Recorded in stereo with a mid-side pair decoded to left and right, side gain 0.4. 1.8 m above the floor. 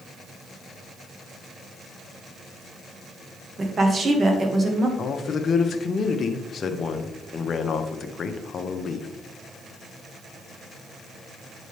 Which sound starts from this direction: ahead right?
A woman speaking, at 3.6 s.